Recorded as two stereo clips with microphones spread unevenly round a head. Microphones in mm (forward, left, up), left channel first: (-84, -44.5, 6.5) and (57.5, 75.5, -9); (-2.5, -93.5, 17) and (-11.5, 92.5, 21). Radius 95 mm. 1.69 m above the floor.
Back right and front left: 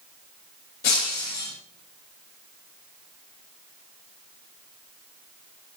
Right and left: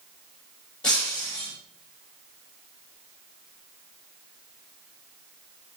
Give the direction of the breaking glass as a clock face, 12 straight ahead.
6 o'clock.